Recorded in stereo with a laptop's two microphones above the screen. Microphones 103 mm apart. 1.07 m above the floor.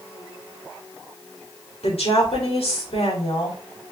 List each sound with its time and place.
1.8 s a woman speaking: 70° left (ahead or behind), 3 m